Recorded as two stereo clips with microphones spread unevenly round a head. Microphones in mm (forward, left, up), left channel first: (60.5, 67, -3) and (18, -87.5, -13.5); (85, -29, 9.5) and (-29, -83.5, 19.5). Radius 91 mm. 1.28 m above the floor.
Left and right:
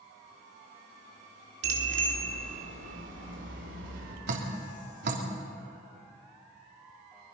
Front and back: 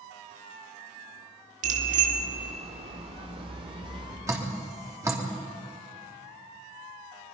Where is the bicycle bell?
140° right, 2.5 m; by 4.2 s 105° right, 3.5 m.